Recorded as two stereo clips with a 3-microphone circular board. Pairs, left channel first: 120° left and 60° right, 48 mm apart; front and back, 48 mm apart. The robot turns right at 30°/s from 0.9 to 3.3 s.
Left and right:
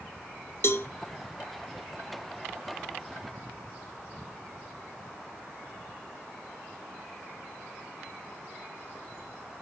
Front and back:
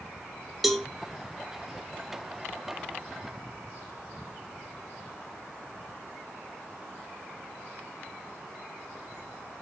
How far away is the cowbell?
About 0.8 m.